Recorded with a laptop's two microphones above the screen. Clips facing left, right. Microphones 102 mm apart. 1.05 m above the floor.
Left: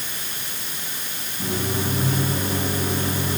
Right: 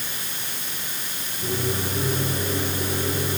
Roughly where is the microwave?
Left.